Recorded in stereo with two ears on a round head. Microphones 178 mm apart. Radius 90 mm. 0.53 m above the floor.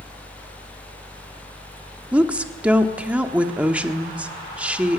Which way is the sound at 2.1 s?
5° right (ahead or behind).